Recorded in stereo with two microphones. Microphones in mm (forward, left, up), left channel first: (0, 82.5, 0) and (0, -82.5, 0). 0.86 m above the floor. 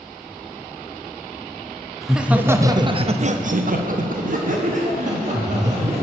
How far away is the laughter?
About 0.8 m.